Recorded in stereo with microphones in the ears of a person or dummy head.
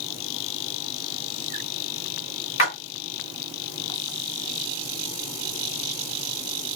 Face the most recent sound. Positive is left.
turn(degrees=60)  # may be behind; listen again after turning